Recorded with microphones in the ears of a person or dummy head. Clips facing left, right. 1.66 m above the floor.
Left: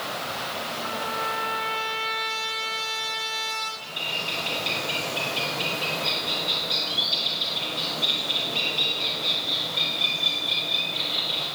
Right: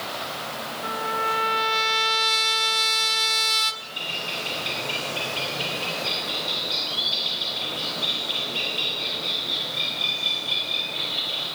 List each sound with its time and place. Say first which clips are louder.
0.8 s a trumpet: right 5 dB; 65° right (ahead or behind), 1.1 m
3.8 s a bird: even; centre (ahead or behind), 6 m